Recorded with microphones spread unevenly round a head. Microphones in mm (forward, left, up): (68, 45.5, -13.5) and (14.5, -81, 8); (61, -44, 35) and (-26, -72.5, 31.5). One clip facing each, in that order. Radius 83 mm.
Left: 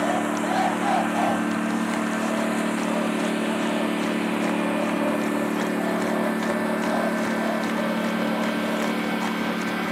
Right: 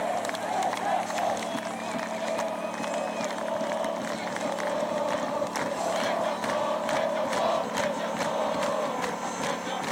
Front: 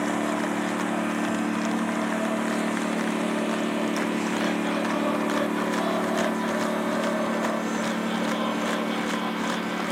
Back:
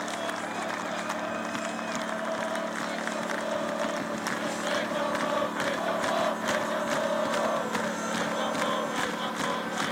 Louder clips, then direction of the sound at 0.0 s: Left 6 dB, front 7 dB; 55° left.